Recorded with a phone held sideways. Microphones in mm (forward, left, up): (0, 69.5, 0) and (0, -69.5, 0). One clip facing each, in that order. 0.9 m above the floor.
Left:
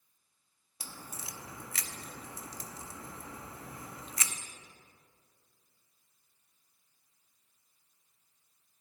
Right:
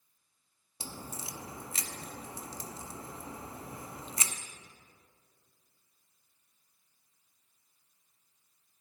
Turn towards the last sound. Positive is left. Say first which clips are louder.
# right 4 dB
turn(degrees=-30)  # may be behind; listen again after turning